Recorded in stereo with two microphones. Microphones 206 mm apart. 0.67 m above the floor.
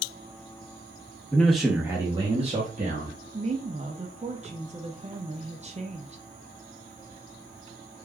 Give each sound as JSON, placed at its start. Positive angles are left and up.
{"t": 1.3, "sound": "a man speaking", "side_deg": 5, "distance_m": 0.9}
{"t": 3.3, "sound": "a woman speaking", "side_deg": -35, "distance_m": 0.6}